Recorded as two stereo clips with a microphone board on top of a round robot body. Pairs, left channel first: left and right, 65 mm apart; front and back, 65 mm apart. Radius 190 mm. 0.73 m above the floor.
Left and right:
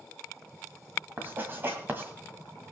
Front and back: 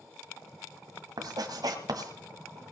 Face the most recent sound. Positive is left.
turn(degrees=-150)